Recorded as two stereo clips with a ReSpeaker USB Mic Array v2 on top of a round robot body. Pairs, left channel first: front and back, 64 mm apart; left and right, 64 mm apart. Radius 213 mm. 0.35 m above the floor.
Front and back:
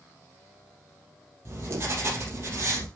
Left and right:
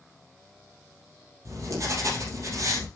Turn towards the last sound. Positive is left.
turn(degrees=-130)